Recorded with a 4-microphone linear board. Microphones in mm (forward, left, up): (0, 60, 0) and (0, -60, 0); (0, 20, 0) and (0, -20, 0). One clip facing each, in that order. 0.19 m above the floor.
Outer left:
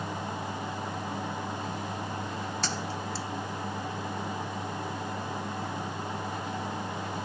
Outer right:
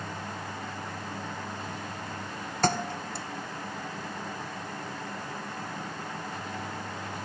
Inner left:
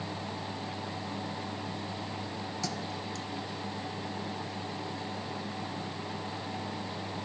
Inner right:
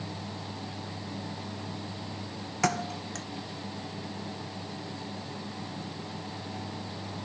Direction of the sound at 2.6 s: 55° right (ahead or behind).